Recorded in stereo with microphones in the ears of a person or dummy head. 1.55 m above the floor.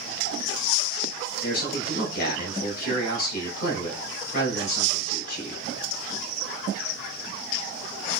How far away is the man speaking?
About 2.5 m.